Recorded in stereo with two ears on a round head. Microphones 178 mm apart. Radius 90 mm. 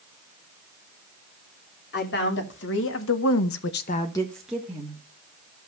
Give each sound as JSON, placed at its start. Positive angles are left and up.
{"t": 1.9, "sound": "a woman speaking", "side_deg": 60, "distance_m": 3.0}